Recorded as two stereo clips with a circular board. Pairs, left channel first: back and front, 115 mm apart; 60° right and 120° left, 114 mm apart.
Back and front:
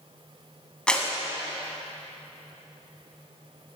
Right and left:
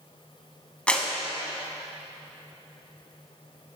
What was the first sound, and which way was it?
A clap, 120° right.